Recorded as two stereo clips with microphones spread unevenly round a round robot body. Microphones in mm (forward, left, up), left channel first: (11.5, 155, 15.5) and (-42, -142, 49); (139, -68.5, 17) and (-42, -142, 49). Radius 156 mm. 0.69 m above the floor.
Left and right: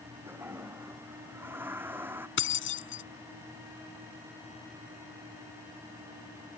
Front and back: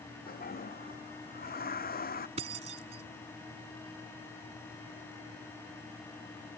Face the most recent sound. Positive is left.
turn(degrees=130)